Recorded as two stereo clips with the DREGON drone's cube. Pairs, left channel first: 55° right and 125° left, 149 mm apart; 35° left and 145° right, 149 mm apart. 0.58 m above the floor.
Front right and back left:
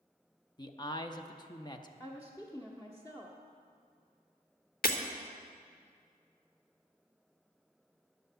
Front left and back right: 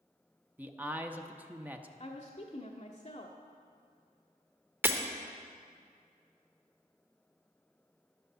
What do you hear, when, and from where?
0.6 s a man speaking: 80° right, 0.7 m
2.0 s a woman speaking: 10° left, 1.0 m
4.8 s breaking glass: 70° right, 1.0 m